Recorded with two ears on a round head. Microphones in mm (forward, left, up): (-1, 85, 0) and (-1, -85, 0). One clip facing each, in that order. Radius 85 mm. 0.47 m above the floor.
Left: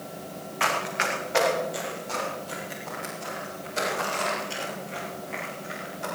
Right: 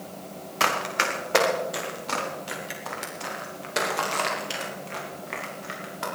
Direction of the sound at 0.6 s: 55° right (ahead or behind).